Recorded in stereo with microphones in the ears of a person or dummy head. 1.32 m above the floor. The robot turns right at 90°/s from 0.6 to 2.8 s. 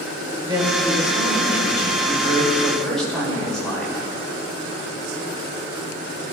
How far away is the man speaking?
About 4.5 m.